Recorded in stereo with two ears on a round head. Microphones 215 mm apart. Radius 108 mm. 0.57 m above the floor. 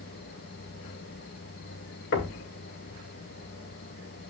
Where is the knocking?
50° left (ahead or behind), 1.5 m.